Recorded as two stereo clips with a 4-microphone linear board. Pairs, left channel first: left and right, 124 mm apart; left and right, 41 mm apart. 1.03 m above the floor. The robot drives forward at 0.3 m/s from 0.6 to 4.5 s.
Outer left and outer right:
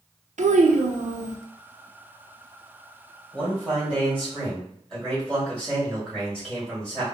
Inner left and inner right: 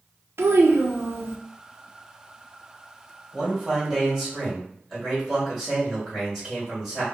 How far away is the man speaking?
About 1.7 m.